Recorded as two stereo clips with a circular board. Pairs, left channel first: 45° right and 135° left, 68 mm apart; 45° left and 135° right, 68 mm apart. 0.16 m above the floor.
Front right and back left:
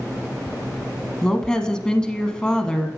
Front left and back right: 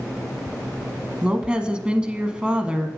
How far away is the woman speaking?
About 1.0 m.